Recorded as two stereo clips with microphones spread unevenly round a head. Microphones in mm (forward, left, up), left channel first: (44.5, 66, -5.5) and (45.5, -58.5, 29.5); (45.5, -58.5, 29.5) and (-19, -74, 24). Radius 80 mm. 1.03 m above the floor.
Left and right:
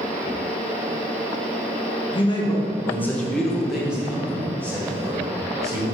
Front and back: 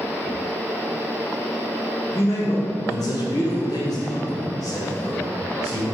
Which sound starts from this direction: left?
A man speaking, at 2.1 s.